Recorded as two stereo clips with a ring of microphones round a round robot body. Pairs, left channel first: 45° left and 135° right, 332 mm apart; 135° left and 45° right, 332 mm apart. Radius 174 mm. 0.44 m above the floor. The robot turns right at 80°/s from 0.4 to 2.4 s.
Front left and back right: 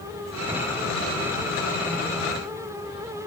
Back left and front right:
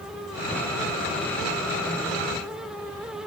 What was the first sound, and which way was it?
Only background noise.